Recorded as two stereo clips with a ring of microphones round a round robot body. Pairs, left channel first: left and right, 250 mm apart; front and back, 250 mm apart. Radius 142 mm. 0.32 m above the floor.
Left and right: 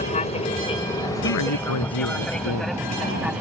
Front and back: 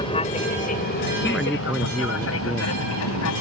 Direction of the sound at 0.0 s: 55° left.